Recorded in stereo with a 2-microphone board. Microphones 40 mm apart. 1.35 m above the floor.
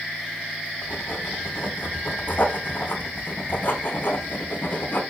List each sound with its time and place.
0.8 s writing: 65° left (ahead or behind), 2 m